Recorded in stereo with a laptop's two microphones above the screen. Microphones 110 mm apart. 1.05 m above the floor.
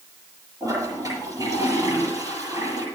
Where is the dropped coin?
No dropped coin in this recording.